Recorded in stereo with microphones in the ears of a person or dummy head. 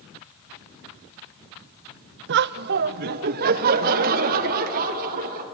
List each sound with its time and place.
2.3 s laughter: 60° right (ahead or behind), 0.5 m; by 5.4 s 50° right (ahead or behind), 3 m